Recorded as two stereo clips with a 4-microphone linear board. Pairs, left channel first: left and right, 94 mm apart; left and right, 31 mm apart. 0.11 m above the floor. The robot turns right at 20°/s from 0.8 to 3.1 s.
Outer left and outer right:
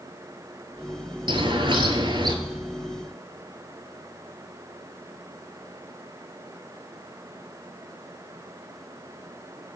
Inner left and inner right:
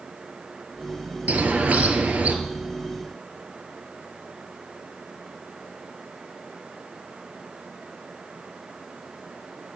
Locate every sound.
1.3 s a bird: 55° right (ahead or behind), 0.7 m; by 2.4 s 50° right (ahead or behind), 0.7 m